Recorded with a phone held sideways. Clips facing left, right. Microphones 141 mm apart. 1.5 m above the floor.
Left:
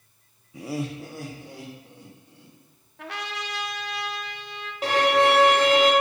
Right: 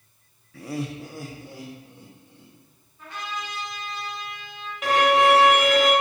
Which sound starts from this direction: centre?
Laughter, at 0.5 s.